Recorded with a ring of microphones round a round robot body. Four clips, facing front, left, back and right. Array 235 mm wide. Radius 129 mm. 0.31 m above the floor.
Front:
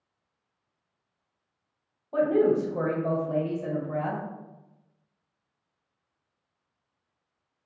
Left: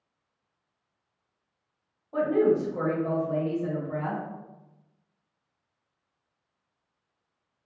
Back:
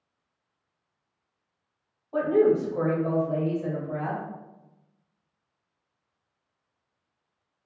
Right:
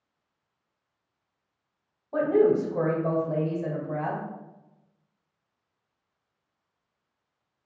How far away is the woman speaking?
About 1.1 m.